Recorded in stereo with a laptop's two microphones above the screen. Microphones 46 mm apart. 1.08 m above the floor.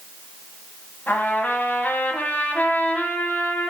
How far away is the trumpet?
About 1.1 m.